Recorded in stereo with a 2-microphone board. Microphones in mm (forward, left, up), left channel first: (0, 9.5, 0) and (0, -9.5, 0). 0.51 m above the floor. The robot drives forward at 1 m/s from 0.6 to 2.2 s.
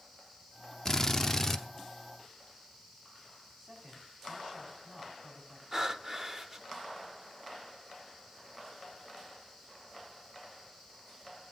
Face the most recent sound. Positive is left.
turn(degrees=-25)  # may be behind; listen again after turning